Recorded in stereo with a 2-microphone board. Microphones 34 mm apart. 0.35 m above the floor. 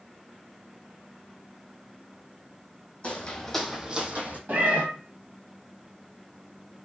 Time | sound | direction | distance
3.0 | footsteps | 35° left (ahead or behind) | 0.8 m
4.5 | a cat meowing | 55° right (ahead or behind) | 0.6 m